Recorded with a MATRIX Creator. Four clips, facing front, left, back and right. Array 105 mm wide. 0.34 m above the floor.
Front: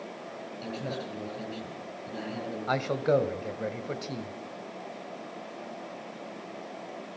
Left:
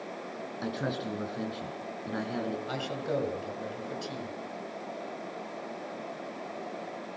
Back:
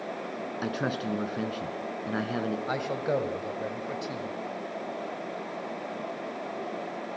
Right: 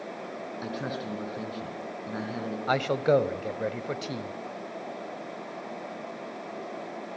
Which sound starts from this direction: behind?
A man speaking, at 0.6 s.